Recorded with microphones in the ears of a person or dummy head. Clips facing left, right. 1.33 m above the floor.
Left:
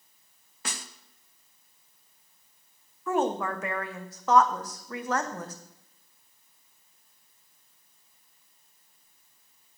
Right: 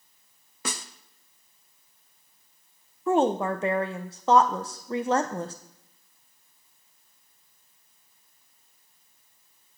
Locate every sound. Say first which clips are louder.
0.7 s a snare drum: right 5 dB; 70° right (ahead or behind), 0.9 m
3.1 s a woman speaking: right 4 dB; 25° right (ahead or behind), 0.6 m